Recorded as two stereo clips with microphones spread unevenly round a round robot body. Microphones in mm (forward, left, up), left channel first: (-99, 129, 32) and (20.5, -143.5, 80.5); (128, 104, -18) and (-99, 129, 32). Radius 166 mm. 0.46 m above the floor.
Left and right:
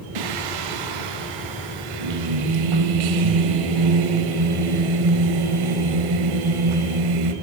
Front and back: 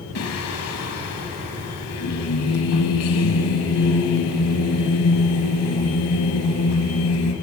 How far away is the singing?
About 0.8 m.